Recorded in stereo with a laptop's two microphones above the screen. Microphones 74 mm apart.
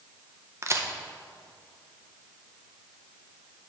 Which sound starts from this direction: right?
A crack, at 0.6 s.